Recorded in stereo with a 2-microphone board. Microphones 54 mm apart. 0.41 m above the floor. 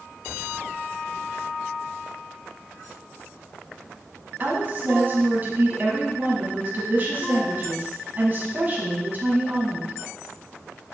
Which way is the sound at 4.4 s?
35° right (ahead or behind).